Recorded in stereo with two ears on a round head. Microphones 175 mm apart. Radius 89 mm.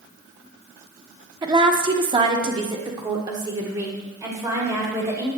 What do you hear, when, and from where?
1.4 s a woman speaking: 20° right (ahead or behind), 0.8 m; by 5.3 s 15° right (ahead or behind), 2.5 m